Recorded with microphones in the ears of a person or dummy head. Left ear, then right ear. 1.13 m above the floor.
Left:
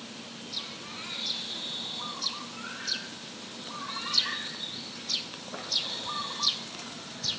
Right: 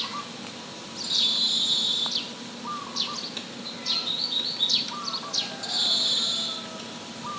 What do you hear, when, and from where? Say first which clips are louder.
1.0 s a bird: right 11 dB; 60° right (ahead or behind), 2.5 m